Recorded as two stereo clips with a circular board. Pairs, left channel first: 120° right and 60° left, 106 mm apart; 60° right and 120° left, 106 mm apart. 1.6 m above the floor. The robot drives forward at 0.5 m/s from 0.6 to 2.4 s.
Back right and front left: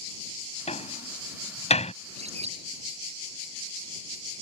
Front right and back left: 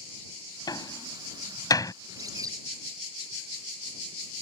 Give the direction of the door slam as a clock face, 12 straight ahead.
4 o'clock.